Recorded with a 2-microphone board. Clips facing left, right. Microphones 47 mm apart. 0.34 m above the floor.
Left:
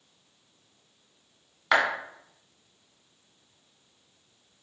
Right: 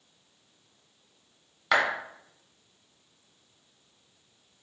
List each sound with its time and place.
1.7 s a clap: 5° left (ahead or behind), 1.0 m